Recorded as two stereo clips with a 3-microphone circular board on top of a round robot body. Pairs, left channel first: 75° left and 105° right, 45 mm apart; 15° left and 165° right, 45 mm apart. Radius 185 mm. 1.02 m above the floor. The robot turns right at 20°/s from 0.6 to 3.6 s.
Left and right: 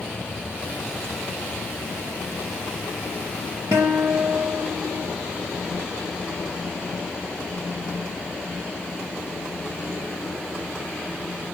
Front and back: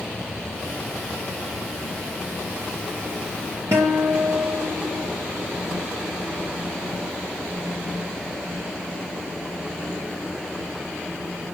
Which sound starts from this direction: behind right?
A guitar, at 3.7 s.